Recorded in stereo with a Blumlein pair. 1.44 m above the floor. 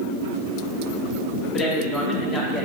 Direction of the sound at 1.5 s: 20° left.